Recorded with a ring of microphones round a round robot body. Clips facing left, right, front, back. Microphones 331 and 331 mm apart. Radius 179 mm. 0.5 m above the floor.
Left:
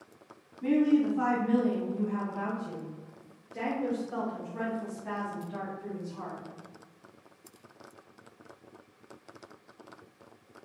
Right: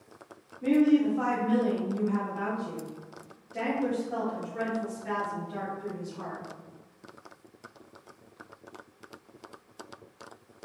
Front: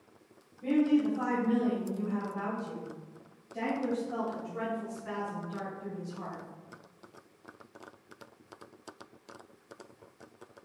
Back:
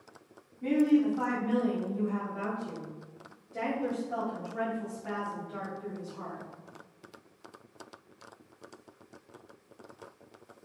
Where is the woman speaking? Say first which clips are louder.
Right 2 dB, back 2 dB; 150° left, 1.3 m; by 6.4 s 165° right, 4.5 m.